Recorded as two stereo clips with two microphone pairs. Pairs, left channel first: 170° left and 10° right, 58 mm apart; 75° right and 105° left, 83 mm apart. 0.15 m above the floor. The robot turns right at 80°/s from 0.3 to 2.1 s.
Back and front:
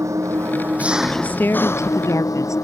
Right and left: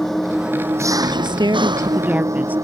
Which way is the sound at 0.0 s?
15° left.